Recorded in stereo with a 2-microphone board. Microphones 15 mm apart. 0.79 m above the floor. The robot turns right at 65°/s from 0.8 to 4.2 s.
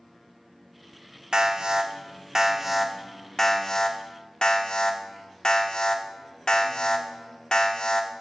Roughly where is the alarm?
Right.